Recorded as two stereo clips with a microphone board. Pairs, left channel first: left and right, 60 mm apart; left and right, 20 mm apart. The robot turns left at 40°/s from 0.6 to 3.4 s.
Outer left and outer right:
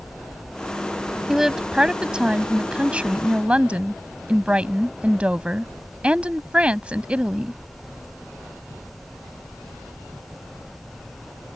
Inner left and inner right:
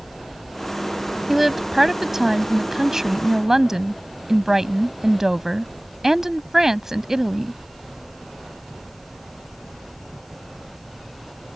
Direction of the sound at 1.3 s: 5° right (ahead or behind).